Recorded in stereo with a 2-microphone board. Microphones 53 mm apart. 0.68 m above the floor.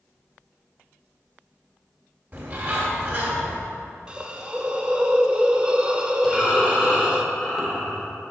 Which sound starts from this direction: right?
A bird, at 2.3 s.